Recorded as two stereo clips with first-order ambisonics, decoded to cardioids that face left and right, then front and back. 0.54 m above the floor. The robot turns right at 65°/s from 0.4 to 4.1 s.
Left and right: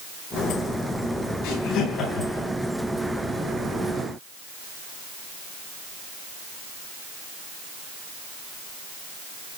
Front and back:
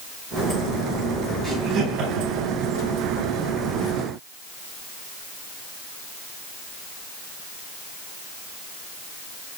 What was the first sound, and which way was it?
Laughter, 105° left.